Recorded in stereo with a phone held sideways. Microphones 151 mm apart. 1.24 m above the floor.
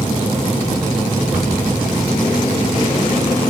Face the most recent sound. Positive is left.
turn(degrees=-10)  # may be behind; listen again after turning